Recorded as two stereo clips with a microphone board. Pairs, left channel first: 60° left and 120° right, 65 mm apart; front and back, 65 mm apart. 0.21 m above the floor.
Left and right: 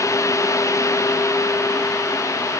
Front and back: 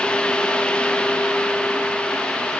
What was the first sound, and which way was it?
Only background noise.